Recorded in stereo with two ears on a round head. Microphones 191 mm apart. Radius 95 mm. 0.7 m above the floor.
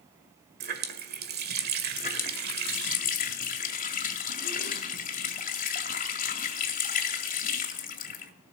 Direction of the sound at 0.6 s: 50° right (ahead or behind).